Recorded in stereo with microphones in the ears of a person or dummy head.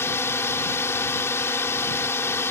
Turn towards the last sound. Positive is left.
turn(degrees=15)  # may be behind; listen again after turning